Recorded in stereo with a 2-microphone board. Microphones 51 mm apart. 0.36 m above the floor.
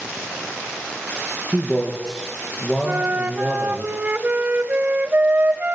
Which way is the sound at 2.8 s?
30° right (ahead or behind).